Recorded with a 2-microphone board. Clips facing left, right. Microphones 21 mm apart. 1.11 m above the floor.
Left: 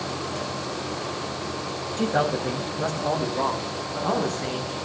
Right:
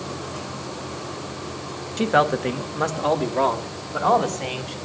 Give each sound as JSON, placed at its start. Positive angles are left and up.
{"t": 2.0, "sound": "a man speaking", "side_deg": -40, "distance_m": 1.1}